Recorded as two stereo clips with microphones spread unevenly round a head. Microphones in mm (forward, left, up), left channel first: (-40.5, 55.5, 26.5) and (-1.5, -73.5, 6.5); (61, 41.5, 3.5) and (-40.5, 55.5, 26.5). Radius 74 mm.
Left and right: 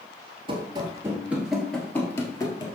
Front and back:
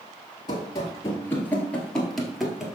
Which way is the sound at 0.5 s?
50° right.